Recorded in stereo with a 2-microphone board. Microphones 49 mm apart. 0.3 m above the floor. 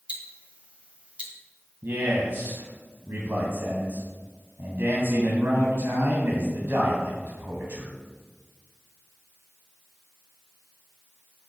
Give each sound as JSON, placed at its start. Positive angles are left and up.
{"t": 0.1, "sound": "ticking", "side_deg": -25, "distance_m": 1.6}
{"t": 1.8, "sound": "a man speaking", "side_deg": -50, "distance_m": 2.5}